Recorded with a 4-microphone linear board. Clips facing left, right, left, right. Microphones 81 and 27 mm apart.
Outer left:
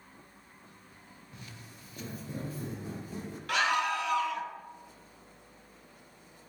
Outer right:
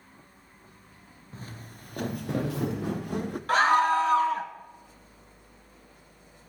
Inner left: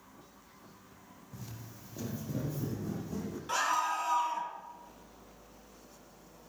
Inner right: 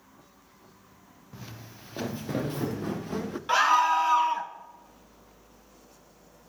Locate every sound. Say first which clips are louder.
1.3 s footsteps: outer right 7 dB, inner right 4 dB; 35° right (ahead or behind), 1.7 m; by 3.4 s 60° right (ahead or behind), 1.8 m
3.5 s a scream: outer right 8 dB, inner right 9 dB; 35° right (ahead or behind), 1.7 m